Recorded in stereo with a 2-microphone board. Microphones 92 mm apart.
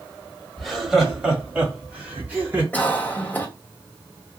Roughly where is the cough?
Centre.